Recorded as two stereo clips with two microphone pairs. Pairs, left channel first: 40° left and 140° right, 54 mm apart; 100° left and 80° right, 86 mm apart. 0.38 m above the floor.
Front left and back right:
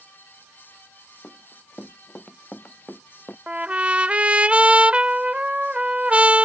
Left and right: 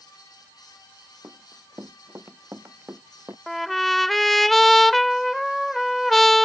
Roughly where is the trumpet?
Behind.